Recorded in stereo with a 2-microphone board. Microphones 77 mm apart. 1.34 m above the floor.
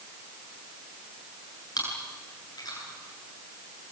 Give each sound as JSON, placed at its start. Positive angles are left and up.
{"t": 1.8, "sound": "chewing", "side_deg": 55, "distance_m": 9.5}